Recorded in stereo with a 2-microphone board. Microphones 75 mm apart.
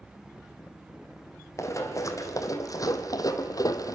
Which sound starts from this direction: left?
Running footsteps, at 1.6 s.